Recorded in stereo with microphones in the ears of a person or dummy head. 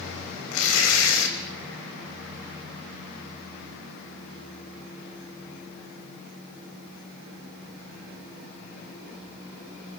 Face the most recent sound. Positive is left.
turn(degrees=75)  # may be behind; listen again after turning